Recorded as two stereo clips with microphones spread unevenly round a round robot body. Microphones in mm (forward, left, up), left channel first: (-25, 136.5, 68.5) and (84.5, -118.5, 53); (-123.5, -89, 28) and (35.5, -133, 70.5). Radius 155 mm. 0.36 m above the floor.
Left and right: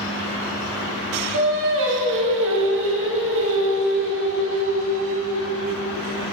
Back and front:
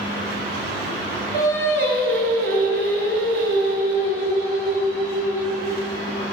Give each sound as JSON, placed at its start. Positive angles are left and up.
{"t": 1.3, "sound": "singing", "azimuth_deg": -25, "distance_m": 1.2}